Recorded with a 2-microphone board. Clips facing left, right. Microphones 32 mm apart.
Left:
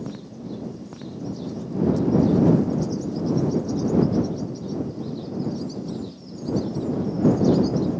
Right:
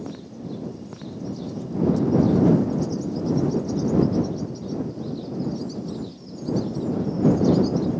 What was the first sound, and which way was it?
Only background noise.